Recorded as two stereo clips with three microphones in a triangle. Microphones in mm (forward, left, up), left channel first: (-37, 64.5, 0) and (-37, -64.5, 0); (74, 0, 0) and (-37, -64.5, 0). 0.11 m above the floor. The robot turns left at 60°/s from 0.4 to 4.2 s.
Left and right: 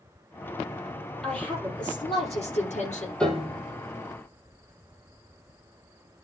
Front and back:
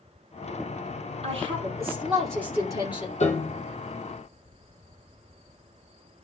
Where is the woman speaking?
Straight behind, 3 m; by 3.1 s 65° left, 3 m.